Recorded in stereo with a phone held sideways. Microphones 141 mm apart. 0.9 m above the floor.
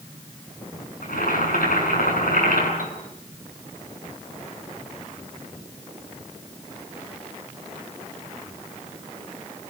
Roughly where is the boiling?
Left.